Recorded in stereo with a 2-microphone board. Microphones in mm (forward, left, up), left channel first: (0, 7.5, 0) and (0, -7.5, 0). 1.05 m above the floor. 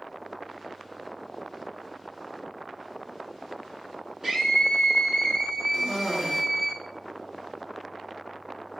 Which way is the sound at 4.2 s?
20° right (ahead or behind).